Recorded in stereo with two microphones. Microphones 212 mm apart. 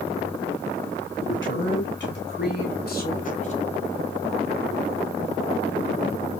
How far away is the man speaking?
About 3.5 m.